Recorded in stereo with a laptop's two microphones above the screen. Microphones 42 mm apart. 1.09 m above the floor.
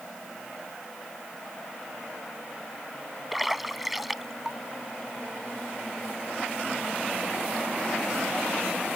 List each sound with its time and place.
3.3 s a splash: 5° right (ahead or behind)